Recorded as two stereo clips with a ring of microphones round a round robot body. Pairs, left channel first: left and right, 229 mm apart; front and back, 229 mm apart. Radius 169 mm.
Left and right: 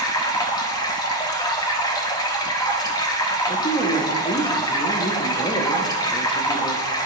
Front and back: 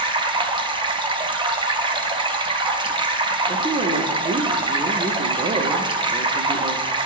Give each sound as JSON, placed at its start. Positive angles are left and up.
{"t": 0.0, "sound": "running water", "azimuth_deg": 140, "distance_m": 0.7}
{"t": 3.5, "sound": "a woman speaking", "azimuth_deg": 135, "distance_m": 0.8}